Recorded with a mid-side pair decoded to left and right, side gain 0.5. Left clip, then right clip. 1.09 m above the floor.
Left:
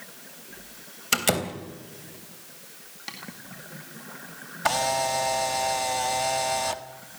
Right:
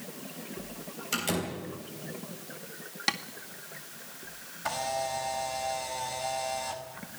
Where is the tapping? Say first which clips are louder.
Right 9 dB; 55° right, 1.9 m.